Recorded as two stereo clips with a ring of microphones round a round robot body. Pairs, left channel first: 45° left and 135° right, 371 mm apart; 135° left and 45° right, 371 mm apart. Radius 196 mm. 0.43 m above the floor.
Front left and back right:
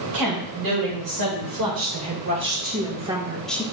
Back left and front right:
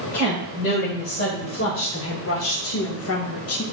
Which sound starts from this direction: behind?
A woman speaking, at 0.1 s.